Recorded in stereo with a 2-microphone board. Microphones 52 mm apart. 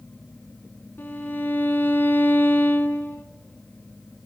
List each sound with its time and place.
1.0 s a violin: 40° left (ahead or behind), 2.5 m